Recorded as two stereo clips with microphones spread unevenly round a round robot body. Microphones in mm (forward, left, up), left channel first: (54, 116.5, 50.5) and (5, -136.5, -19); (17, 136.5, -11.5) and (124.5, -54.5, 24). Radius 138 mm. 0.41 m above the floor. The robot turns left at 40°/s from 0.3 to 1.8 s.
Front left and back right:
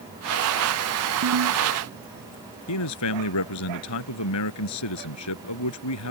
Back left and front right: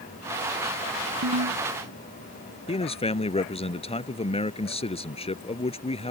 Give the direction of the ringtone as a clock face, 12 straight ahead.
2 o'clock.